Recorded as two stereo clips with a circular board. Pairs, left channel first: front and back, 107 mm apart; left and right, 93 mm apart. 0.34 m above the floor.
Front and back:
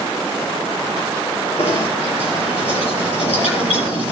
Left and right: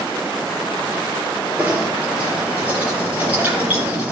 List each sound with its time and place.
1.6 s knocking: 15° right, 5.5 m